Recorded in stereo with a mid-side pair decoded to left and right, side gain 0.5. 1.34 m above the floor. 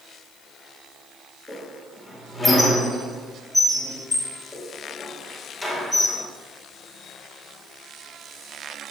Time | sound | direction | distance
1.5 | a squeak | 10° left | 1.8 m